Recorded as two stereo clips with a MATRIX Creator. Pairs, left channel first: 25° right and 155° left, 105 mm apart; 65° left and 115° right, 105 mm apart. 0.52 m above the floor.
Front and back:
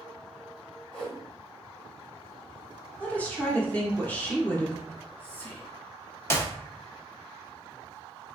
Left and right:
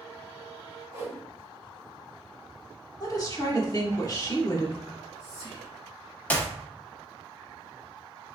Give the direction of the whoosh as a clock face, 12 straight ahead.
3 o'clock.